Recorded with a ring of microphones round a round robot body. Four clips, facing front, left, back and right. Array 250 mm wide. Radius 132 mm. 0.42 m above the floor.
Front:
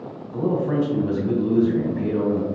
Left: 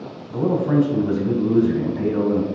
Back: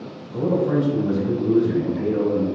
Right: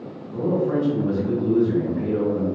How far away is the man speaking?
About 3 m.